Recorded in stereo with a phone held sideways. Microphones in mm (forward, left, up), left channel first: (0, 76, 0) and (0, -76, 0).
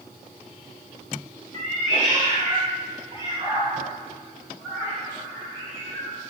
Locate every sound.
1.5 s a cat meowing: 50° right (ahead or behind), 1.1 m; by 6.2 s 15° left (ahead or behind), 2.0 m